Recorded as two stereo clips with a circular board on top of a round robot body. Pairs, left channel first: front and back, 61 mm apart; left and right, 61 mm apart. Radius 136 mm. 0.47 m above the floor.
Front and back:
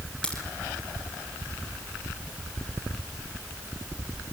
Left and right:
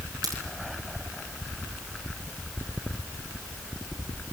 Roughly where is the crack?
Right.